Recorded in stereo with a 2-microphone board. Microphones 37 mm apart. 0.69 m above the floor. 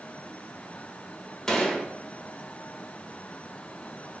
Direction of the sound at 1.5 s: 15° left (ahead or behind).